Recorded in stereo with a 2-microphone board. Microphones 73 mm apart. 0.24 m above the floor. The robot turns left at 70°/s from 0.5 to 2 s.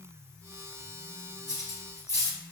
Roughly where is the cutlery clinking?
Left.